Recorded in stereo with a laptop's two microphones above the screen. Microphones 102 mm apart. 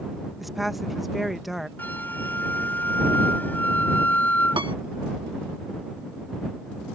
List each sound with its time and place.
0.4 s a woman speaking: centre (ahead or behind)
1.8 s a flute: 15° left (ahead or behind)
4.6 s a piano: 50° right (ahead or behind)